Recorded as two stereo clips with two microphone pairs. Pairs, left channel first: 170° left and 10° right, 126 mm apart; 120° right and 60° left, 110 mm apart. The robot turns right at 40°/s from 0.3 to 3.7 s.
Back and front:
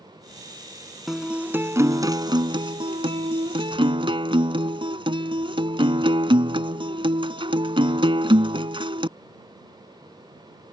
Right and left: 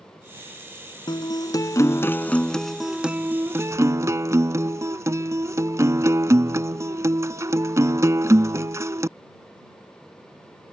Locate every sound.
1.1 s a guitar: 95° right; by 9.1 s 10° left